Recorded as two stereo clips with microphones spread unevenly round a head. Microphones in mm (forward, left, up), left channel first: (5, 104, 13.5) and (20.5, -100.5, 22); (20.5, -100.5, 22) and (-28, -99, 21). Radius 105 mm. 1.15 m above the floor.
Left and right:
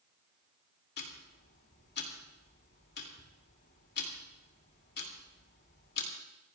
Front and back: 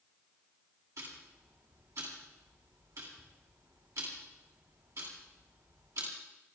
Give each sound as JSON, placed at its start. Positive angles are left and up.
{"t": 1.0, "sound": "ticking", "azimuth_deg": 140, "distance_m": 2.5}